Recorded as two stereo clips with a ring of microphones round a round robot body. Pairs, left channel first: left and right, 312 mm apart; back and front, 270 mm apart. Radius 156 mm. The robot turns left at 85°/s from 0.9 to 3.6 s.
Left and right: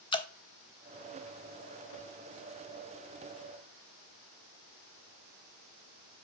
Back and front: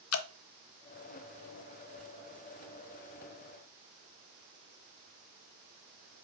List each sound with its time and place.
0.1 s dripping: 160° left, 0.7 m